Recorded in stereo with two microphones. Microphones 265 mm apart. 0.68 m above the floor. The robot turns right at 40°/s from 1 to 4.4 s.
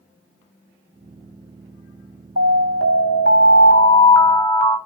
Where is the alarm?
100° left, 5 m; by 4.8 s straight behind, 5 m.